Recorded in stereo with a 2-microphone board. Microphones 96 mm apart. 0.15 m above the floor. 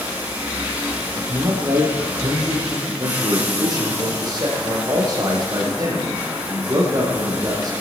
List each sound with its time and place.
0.0 s running water: 20° right (ahead or behind), 4 m
1.2 s a man speaking: 45° right (ahead or behind), 5 m
2.9 s a man speaking: 45° right (ahead or behind), 5 m